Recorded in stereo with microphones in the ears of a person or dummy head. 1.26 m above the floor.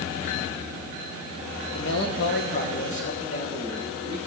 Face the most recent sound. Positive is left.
turn(degrees=20)  # may be behind; listen again after turning